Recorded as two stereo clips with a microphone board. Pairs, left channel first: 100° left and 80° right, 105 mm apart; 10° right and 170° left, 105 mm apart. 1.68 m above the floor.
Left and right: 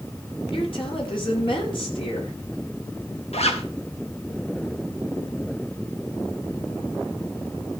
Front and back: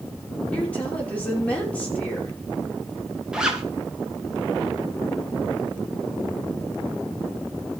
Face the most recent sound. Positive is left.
turn(degrees=85)